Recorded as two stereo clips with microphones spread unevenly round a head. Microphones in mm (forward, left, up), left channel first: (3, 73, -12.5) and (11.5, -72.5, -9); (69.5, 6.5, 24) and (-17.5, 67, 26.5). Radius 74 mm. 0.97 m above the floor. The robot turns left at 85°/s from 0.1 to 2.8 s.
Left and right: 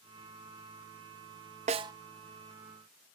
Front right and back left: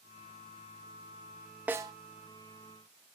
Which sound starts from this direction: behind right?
A snare drum, at 1.7 s.